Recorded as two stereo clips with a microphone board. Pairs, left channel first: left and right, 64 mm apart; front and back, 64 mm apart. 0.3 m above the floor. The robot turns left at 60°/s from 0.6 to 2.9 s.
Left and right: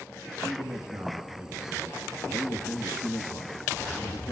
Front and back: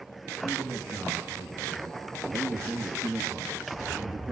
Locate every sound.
0.4 s a man speaking: 105° right, 3 m; by 4.3 s 115° left, 3 m